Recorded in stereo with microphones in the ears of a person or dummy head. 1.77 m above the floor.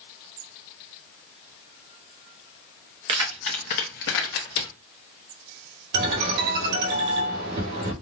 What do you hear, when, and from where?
3.1 s keys jangling: 25° right (ahead or behind), 0.7 m; by 4.7 s 65° left (ahead or behind), 1.6 m
5.9 s a ringtone: 60° right (ahead or behind), 2 m